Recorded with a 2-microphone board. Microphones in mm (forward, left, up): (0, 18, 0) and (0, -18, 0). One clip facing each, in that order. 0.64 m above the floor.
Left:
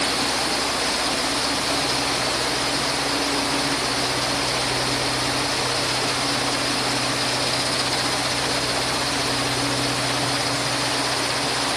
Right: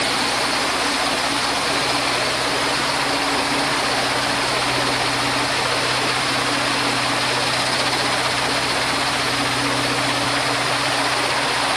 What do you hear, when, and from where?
Only background noise.